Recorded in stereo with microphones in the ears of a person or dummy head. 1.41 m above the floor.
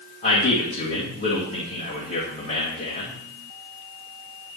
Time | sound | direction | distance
0.2 | a man speaking | 45° left (ahead or behind) | 1.7 m